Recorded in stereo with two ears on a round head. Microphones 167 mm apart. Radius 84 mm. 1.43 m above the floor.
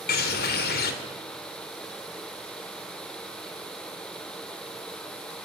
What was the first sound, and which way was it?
A bird, 55° left (ahead or behind).